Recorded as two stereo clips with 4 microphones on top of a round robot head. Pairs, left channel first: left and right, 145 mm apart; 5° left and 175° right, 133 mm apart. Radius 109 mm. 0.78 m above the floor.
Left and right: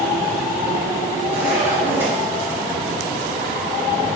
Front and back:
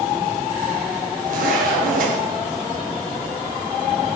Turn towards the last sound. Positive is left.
turn(degrees=-170)